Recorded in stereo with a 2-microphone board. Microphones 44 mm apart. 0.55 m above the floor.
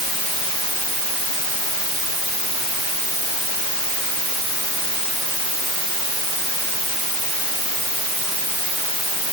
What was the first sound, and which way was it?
Only background noise.